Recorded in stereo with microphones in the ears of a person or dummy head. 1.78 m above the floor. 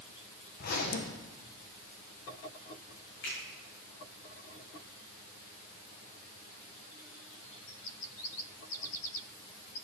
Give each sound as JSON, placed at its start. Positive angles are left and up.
{"t": 0.6, "sound": "a zipper", "side_deg": 50, "distance_m": 1.7}
{"t": 3.2, "sound": "a finger snap", "side_deg": 65, "distance_m": 7.0}